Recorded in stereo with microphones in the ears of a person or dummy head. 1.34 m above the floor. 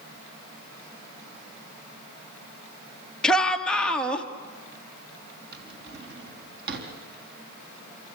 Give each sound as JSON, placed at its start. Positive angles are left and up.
{"t": 3.2, "sound": "a shout", "side_deg": 10, "distance_m": 1.8}
{"t": 5.5, "sound": "a drawer", "side_deg": -60, "distance_m": 3.5}